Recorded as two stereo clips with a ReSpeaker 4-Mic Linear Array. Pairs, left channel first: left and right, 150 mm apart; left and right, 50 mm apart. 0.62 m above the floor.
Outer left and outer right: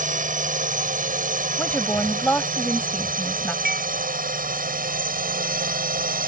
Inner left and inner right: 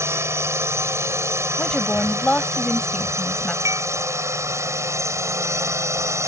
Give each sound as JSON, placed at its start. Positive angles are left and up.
{"t": 0.0, "sound": "a drone", "side_deg": -60}
{"t": 1.6, "sound": "a woman speaking", "side_deg": 10}
{"t": 3.6, "sound": "dishes clattering", "side_deg": -80}